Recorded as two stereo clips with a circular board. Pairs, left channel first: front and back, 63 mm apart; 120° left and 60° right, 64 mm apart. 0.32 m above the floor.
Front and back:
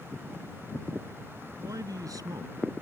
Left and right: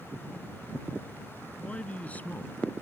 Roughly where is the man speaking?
Behind.